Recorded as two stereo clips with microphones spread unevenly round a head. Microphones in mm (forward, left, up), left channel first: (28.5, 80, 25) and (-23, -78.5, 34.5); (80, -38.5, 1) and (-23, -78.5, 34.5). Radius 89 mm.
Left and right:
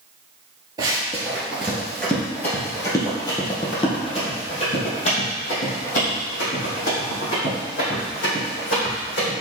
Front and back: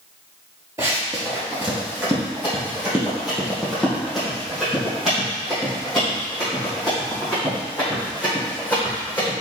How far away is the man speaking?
No man speaking in this recording.